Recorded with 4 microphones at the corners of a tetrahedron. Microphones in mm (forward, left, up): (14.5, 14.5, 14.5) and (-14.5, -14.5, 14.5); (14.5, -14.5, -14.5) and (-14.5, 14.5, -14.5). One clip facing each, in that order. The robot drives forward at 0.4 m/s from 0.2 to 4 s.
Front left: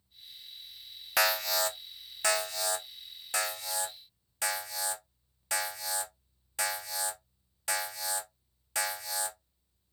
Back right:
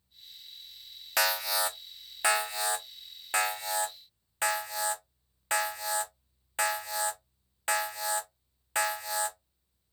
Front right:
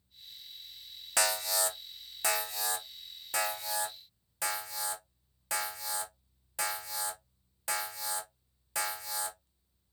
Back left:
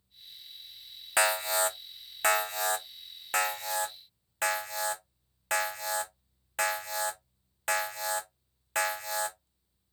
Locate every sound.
1.2 s an alarm: 130° left, 0.6 m; by 9.4 s 170° left, 1.4 m